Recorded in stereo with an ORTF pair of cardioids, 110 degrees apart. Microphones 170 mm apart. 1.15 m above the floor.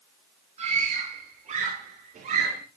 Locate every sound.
0.6 s a scream: 40° right, 9 m; by 2.6 s 55° right, 10 m